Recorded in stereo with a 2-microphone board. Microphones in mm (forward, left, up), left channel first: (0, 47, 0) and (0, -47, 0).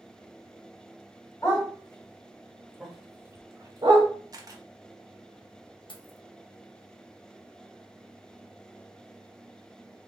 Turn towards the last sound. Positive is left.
turn(degrees=60)  # may be behind; listen again after turning